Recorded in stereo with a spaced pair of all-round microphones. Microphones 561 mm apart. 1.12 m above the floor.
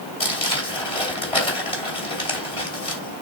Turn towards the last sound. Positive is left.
turn(degrees=65)  # may be behind; listen again after turning